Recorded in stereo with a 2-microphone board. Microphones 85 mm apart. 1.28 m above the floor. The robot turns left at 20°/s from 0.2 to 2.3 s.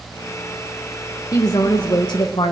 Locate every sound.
1.3 s a woman speaking: 45° left (ahead or behind), 1.2 m; by 2.5 s 65° left (ahead or behind), 1.2 m